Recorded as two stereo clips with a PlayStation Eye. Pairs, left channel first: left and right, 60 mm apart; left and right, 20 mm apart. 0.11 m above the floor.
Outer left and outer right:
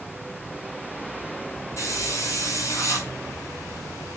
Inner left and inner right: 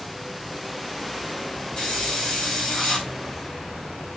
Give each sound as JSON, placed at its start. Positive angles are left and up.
{"t": 1.8, "sound": "a hiss", "side_deg": 50, "distance_m": 4.5}